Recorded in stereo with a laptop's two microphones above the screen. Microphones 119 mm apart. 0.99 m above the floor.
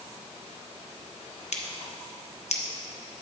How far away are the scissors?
About 0.8 m.